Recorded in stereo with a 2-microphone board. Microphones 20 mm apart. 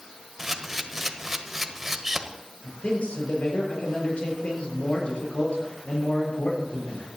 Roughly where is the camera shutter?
Centre.